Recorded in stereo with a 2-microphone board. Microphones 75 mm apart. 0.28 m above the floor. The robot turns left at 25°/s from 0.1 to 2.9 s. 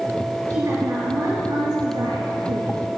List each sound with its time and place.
0.5 s a woman speaking: 35° right, 4 m; by 2.8 s 95° right, 4 m